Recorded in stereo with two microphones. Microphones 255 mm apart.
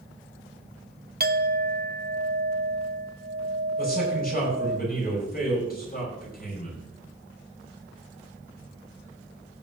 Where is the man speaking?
35° left (ahead or behind), 6.5 m.